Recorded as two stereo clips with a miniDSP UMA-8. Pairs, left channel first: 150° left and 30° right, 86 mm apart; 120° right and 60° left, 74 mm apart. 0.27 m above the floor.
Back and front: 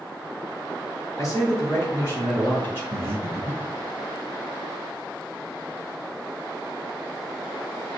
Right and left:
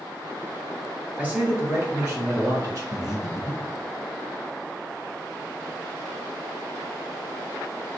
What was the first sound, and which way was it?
A man speaking, 120° left.